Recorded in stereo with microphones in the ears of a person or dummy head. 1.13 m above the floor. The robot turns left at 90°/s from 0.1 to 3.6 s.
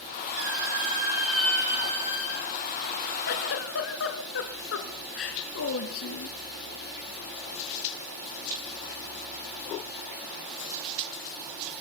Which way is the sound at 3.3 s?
120° left.